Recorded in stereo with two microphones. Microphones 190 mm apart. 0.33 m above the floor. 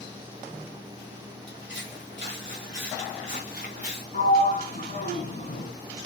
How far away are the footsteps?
About 3.5 m.